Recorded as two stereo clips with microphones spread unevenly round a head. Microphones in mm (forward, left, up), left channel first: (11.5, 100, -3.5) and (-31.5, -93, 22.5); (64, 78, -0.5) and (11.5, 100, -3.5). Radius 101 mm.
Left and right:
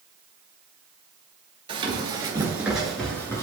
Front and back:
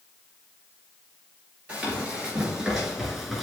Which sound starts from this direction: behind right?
Running footsteps, at 1.7 s.